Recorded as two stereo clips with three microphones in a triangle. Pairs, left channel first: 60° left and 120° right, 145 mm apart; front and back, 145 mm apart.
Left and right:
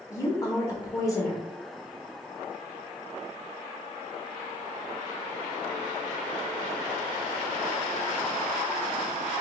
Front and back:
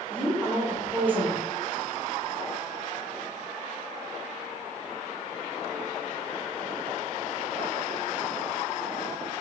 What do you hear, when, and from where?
0.1 s a woman speaking: 110° left, 1.1 m